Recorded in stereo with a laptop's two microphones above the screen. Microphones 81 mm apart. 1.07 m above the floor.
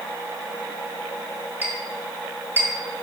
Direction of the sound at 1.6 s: 30° right (ahead or behind).